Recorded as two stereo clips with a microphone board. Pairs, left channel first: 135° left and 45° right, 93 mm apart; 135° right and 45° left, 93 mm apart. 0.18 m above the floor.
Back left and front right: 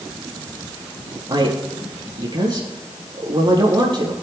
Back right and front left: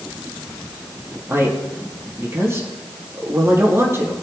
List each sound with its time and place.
1.3 s a man speaking: 15° right, 4 m